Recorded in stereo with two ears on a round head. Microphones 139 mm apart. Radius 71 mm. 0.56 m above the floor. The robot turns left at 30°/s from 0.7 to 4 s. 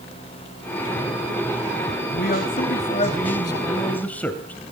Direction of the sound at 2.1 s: 65° left.